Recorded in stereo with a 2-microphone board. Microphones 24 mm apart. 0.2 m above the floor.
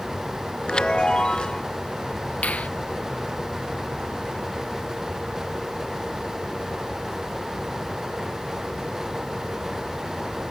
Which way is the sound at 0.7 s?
40° left (ahead or behind).